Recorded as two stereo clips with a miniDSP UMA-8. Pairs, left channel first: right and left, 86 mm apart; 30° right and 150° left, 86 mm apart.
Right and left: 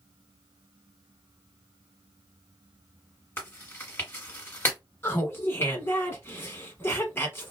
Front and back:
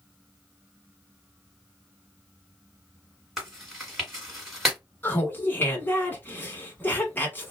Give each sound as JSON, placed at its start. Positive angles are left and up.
{"t": 3.4, "sound": "chewing", "azimuth_deg": -130, "distance_m": 1.7}
{"t": 5.0, "sound": "laughter", "azimuth_deg": -70, "distance_m": 1.2}